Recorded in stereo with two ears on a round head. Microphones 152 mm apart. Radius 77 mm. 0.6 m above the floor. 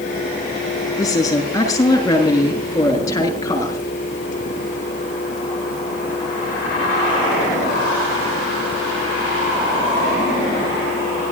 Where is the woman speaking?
25° left (ahead or behind), 8 m.